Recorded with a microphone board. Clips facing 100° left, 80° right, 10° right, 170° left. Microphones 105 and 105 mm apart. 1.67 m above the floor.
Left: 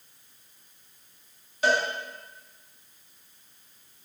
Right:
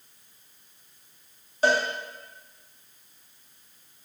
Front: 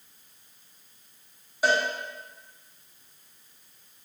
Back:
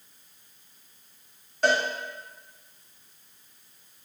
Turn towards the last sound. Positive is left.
turn(degrees=-85)